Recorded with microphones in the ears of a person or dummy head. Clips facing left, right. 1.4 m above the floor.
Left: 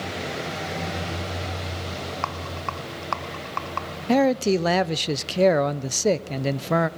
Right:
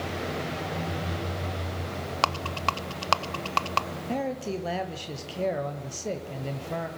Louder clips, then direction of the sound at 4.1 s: Left 12 dB; 75° left (ahead or behind).